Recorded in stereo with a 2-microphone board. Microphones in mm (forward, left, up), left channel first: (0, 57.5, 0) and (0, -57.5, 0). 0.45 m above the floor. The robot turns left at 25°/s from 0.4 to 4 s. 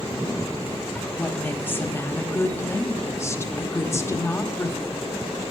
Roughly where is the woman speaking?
Centre.